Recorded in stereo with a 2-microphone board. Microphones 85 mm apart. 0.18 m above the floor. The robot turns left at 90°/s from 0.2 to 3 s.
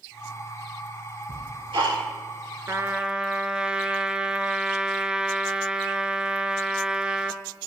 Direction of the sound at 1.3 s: 45° right (ahead or behind).